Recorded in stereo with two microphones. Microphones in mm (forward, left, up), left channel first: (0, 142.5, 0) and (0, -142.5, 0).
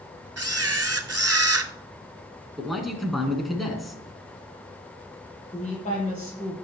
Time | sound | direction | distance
0.4 | a camera shutter | 55° right (ahead or behind) | 0.7 m
2.6 | a man speaking | centre (ahead or behind) | 2 m
5.5 | a woman speaking | 25° left (ahead or behind) | 7 m